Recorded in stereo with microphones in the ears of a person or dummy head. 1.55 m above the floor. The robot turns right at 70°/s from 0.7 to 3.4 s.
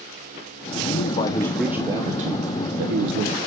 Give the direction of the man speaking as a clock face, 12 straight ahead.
8 o'clock.